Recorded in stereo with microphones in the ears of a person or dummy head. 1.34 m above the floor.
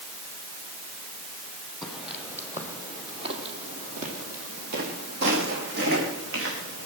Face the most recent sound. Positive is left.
turn(degrees=-70)  # may be behind; listen again after turning